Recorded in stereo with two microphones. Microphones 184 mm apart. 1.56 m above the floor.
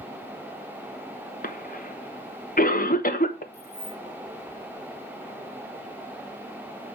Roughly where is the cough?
Left.